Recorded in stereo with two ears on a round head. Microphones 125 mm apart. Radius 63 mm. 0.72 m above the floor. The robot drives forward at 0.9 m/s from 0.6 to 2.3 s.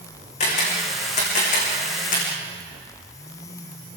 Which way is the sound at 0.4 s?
50° left (ahead or behind).